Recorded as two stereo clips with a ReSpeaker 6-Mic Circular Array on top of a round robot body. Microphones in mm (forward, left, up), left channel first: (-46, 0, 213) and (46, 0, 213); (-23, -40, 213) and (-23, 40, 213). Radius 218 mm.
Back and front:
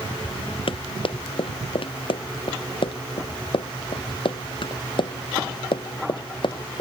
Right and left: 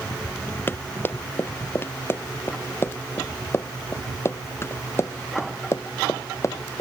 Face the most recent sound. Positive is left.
turn(degrees=-140)